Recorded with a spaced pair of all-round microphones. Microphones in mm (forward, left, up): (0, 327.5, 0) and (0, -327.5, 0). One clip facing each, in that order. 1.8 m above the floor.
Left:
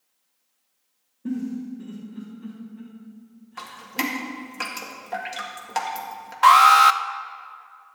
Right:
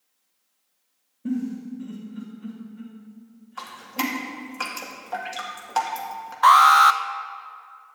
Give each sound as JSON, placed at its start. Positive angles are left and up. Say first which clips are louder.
{"t": 1.2, "sound": "a giggle", "louder": "right 1 dB", "side_deg": -15, "distance_m": 3.5}
{"t": 3.6, "sound": "dripping", "louder": "right 1 dB", "side_deg": 50, "distance_m": 1.9}
{"t": 6.4, "sound": "an alarm", "louder": "left 1 dB", "side_deg": 55, "distance_m": 0.6}